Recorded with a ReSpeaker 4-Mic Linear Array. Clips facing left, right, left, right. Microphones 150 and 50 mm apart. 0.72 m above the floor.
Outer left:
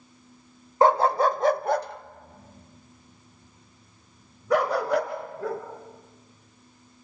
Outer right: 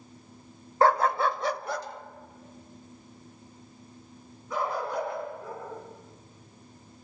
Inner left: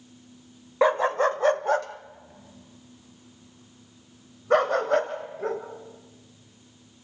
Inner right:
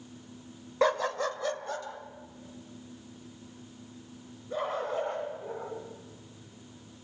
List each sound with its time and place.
0.8 s a dog barking: 20° left (ahead or behind), 0.7 m; by 5.6 s 85° left, 3.5 m